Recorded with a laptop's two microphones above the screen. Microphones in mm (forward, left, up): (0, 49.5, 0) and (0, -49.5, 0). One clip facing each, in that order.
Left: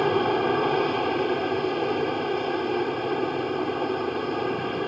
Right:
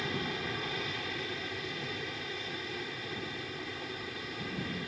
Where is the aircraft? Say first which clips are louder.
Left 15 dB; 60° left (ahead or behind).